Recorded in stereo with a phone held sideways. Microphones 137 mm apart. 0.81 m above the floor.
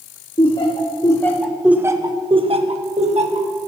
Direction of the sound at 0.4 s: 40° left (ahead or behind).